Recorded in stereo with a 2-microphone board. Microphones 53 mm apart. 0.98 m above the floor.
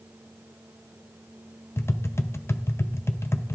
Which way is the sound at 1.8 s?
55° left (ahead or behind).